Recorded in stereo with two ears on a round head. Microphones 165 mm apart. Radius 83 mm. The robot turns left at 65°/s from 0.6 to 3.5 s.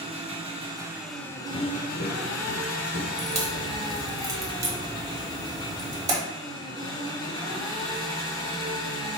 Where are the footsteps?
40° left (ahead or behind), 0.5 m; by 3.1 s 65° left (ahead or behind), 0.9 m.